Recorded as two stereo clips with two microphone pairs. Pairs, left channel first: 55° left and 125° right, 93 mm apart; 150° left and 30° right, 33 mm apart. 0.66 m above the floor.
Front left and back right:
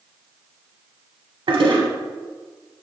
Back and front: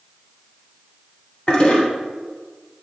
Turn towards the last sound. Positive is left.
turn(degrees=-145)